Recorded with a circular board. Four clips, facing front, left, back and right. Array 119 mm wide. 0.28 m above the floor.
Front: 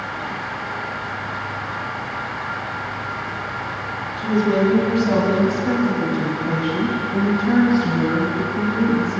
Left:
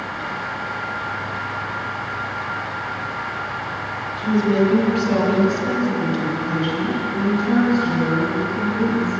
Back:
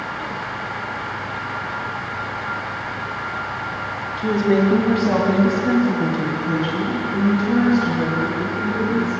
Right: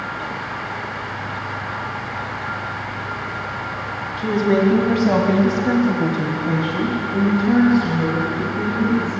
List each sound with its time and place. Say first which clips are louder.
4.2 s a woman speaking: right 1 dB, back 1 dB; 130° right, 2 m; by 9.2 s 5° right, 2.5 m